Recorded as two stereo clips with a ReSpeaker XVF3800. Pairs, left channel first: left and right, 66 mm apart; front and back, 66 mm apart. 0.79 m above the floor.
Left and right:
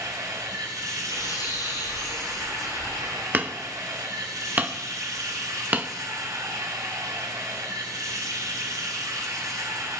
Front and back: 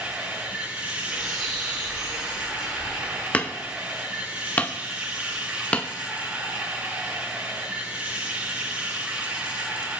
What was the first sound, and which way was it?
Running water, 115° right.